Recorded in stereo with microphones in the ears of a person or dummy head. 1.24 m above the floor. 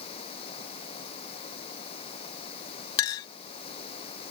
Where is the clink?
25° left (ahead or behind).